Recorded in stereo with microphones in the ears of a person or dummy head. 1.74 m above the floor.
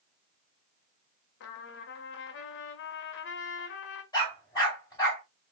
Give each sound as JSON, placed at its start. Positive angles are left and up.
{"t": 1.4, "sound": "a trumpet", "side_deg": 60, "distance_m": 0.7}
{"t": 4.1, "sound": "a dog barking", "side_deg": 20, "distance_m": 2.5}